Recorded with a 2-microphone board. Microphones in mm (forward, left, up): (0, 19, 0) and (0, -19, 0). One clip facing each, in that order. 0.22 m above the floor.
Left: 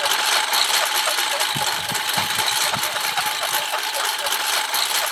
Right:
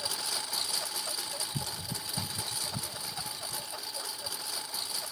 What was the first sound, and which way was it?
A lawn mower, 75° left (ahead or behind).